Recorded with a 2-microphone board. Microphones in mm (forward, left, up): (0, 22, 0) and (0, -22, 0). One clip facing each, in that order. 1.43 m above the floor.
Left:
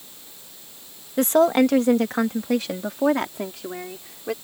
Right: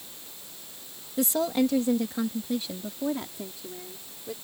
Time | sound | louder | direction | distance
1.2 | a woman speaking | left 8 dB | 50° left (ahead or behind) | ?